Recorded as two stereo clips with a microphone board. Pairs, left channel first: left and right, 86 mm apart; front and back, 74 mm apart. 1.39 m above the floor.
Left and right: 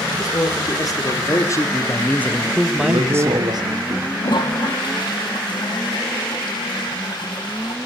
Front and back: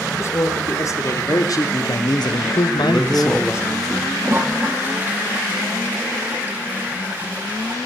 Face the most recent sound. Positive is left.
turn(degrees=115)